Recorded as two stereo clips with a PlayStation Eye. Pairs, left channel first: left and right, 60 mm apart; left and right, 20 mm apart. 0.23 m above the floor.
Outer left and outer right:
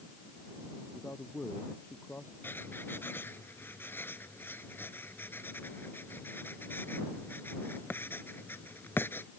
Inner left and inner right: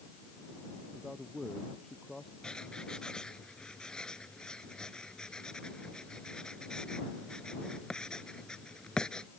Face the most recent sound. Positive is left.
turn(degrees=35)  # may be behind; listen again after turning